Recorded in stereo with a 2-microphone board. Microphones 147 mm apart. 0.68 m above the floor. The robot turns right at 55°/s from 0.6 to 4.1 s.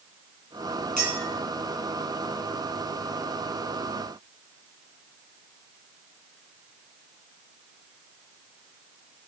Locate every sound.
1.0 s a clink: 60° left (ahead or behind), 3.5 m; by 1.3 s 45° left (ahead or behind), 3.5 m